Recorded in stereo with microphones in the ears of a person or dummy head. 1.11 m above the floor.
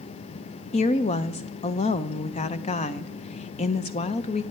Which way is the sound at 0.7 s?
35° left (ahead or behind).